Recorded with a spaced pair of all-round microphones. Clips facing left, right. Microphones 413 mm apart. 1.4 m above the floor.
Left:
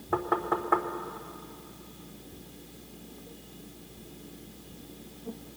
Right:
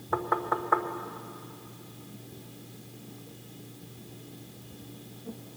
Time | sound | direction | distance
0.1 | knocking | 45° left (ahead or behind) | 0.8 m